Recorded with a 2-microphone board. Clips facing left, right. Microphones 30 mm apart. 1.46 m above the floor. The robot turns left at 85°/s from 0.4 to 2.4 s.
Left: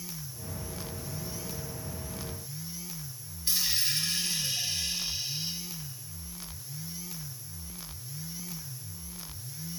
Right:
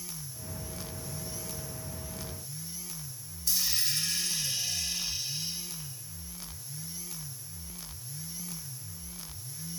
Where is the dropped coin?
35° left (ahead or behind), 1.5 m.